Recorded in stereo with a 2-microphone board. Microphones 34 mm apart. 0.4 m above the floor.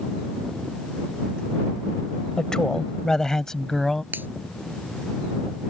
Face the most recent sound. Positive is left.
turn(degrees=-80)